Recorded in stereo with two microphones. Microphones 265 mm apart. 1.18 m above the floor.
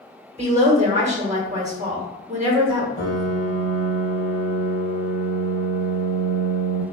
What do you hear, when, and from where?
0.4 s a woman speaking: 25° right (ahead or behind), 1.3 m
3.0 s a piano: 50° left (ahead or behind), 1.7 m